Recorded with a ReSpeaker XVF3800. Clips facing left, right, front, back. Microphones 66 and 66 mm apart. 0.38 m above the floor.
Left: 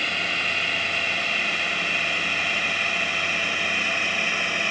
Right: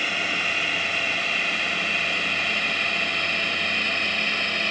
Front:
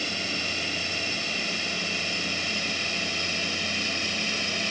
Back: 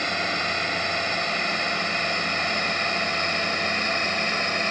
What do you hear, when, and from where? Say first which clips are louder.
0.0 s a drone: even, back 6 dB; 175° right; by 4.7 s 165° left